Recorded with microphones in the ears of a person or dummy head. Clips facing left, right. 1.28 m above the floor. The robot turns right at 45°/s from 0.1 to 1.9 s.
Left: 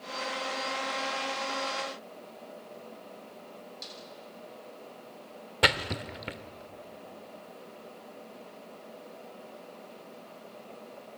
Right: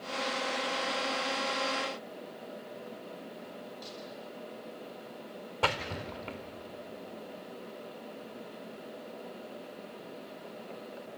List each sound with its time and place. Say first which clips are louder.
3.8 s a snare drum: right 3 dB; 30° left (ahead or behind), 8.5 m
5.6 s a splash: left 3 dB; 15° left (ahead or behind), 1.0 m